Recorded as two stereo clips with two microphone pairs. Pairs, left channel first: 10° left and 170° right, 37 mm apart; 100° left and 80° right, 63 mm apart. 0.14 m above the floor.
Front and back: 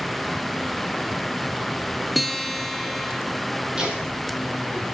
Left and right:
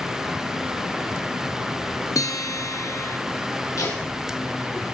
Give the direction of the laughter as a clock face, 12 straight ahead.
8 o'clock.